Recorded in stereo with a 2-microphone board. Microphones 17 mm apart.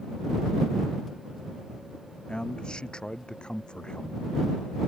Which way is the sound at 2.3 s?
65° left (ahead or behind).